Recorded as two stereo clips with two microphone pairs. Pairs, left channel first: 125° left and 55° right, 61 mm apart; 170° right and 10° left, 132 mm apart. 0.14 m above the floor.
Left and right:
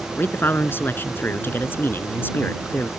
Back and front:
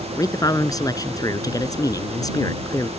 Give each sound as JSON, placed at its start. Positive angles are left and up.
{"t": 0.2, "sound": "a man speaking", "azimuth_deg": 145}